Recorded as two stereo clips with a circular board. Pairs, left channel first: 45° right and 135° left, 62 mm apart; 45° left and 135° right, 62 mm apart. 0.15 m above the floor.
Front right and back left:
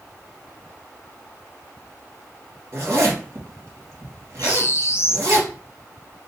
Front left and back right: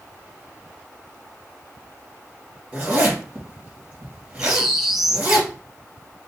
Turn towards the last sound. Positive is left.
turn(degrees=-50)